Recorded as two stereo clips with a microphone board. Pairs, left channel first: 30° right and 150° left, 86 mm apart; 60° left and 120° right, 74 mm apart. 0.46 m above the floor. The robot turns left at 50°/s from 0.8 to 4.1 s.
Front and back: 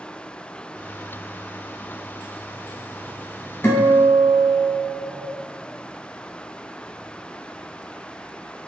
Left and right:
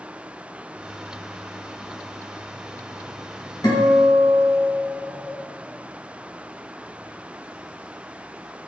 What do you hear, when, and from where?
3.6 s a guitar: 30° left, 1.1 m; by 5.4 s 10° left, 1.1 m